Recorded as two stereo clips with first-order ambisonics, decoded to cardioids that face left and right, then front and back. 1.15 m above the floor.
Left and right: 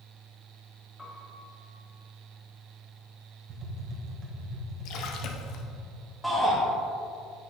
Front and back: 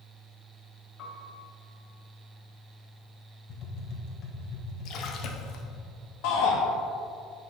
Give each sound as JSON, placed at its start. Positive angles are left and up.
{"t": 1.0, "sound": "a piano", "azimuth_deg": 10, "distance_m": 1.2}
{"t": 3.5, "sound": "tapping", "azimuth_deg": -40, "distance_m": 1.2}
{"t": 4.8, "sound": "a splash", "azimuth_deg": 50, "distance_m": 0.7}
{"t": 6.2, "sound": "a shout", "azimuth_deg": -5, "distance_m": 1.1}